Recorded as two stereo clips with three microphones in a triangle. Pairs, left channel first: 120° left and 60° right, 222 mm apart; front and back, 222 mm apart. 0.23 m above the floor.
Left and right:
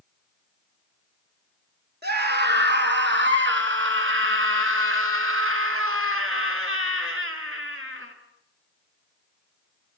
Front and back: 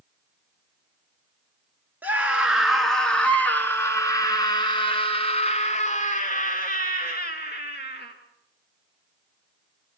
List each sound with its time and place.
2.0 s a scream: 100° right, 3 m; by 8.1 s 40° right, 4 m